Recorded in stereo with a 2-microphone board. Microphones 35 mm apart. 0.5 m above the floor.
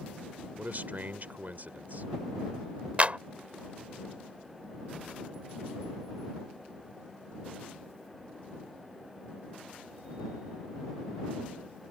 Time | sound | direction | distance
0.6 | a man speaking | 55° right (ahead or behind) | ?
3.0 | a clap | 40° right (ahead or behind) | ?